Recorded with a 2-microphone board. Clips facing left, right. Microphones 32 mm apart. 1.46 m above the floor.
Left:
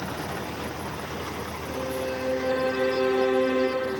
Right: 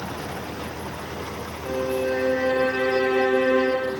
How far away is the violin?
About 3.5 m.